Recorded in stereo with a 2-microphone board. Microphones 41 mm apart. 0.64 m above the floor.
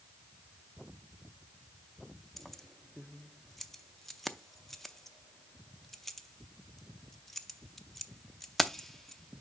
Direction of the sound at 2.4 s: 5° left (ahead or behind).